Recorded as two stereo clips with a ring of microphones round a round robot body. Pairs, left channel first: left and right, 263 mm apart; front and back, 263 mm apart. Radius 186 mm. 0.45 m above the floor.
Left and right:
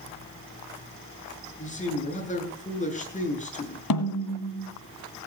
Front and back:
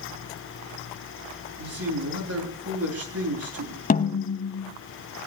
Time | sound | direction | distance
1.6 | a man speaking | 150° left | 7 m
3.9 | a snare drum | 60° left | 1.6 m